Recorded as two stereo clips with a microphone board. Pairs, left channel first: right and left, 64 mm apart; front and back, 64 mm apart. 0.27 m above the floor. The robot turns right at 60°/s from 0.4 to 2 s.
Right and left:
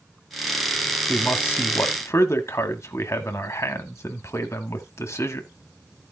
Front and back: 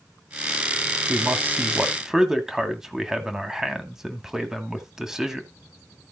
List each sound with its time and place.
1.1 s a man speaking: 155° right, 2 m; by 5.5 s 100° right, 2 m